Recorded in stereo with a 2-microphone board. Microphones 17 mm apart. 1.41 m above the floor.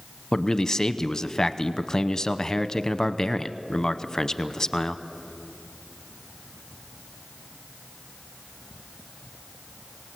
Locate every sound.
0.3 s a man speaking: 35° left (ahead or behind), 0.8 m